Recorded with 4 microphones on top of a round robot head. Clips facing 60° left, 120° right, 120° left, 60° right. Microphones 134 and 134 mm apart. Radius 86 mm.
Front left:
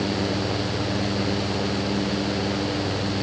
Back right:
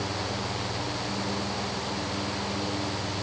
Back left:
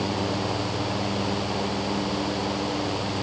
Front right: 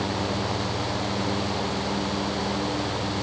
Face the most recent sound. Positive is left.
No sound to turn to.